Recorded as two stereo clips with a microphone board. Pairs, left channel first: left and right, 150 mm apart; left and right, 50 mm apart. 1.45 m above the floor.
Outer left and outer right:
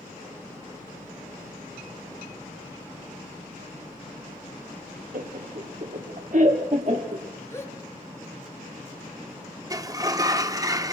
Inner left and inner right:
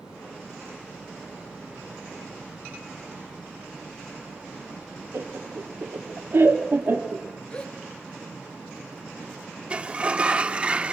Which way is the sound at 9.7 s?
25° right (ahead or behind).